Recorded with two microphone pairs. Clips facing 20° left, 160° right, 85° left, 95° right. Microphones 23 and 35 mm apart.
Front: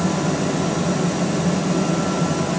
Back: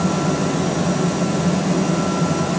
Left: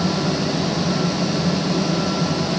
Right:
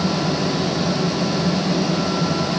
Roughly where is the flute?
No flute in this recording.